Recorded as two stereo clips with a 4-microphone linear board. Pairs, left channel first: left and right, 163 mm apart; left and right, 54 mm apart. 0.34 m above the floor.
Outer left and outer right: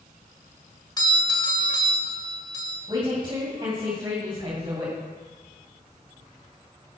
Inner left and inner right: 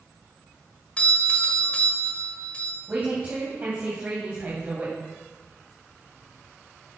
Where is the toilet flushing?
No toilet flushing in this recording.